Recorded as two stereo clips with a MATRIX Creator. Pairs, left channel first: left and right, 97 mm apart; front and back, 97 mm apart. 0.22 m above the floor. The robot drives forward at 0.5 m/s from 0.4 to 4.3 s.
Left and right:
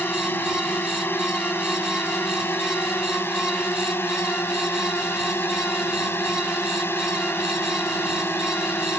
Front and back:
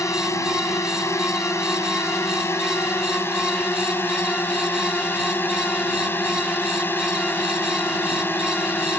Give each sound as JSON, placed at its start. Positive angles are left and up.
{"t": 0.0, "sound": "a drone", "azimuth_deg": 35}